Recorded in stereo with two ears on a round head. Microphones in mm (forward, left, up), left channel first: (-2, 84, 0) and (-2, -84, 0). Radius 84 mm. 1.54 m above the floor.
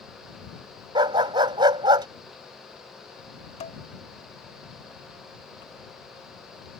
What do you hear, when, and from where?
0.9 s a dog barking: 25° right (ahead or behind)
3.6 s dishes clattering: 35° left (ahead or behind)